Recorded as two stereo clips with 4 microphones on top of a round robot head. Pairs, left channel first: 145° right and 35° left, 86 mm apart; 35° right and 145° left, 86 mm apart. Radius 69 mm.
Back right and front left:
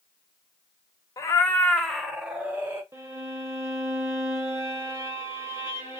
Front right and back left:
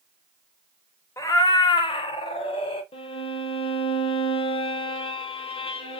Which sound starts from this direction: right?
A cat meowing, at 1.2 s.